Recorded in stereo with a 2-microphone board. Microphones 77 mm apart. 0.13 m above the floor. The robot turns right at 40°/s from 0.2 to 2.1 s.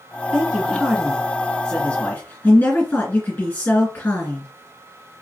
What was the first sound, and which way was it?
A man speaking, 20° right.